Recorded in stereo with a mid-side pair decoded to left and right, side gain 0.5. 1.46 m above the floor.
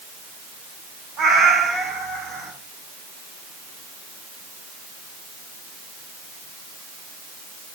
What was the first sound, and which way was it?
A cat meowing, 60° right.